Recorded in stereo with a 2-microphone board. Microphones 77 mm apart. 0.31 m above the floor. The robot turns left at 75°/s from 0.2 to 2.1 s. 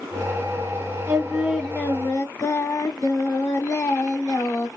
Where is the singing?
145° right, 0.9 m; by 4.7 s 135° left, 0.9 m.